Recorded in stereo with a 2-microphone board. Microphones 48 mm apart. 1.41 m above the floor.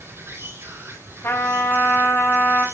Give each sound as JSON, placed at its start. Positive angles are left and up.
{"t": 0.0, "sound": "an insect", "side_deg": -60, "distance_m": 4.0}
{"t": 1.2, "sound": "a trumpet", "side_deg": 65, "distance_m": 5.0}